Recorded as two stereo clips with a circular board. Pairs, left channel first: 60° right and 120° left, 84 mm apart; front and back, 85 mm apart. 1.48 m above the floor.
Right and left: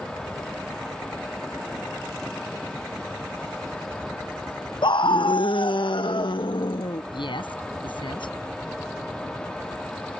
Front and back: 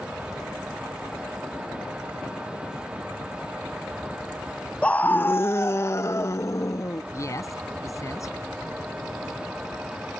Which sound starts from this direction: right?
A scream, at 4.8 s.